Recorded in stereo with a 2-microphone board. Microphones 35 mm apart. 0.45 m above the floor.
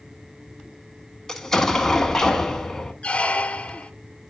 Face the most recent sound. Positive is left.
turn(degrees=35)  # may be behind; listen again after turning